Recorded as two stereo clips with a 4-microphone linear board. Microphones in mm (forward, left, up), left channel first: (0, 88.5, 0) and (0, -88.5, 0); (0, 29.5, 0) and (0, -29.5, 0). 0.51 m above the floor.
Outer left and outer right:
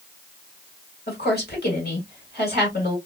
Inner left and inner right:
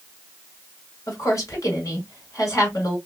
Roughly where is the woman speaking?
Left.